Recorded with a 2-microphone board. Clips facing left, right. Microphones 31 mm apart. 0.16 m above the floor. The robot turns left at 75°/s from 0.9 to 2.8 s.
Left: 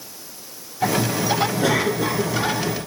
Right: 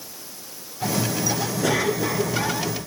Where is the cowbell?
No cowbell in this recording.